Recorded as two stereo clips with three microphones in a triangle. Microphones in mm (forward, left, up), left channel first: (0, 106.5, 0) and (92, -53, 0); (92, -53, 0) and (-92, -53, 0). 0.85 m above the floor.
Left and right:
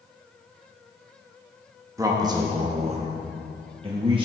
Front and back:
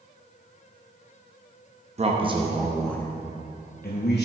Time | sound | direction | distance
2.0 | a man speaking | 130° right | 0.9 m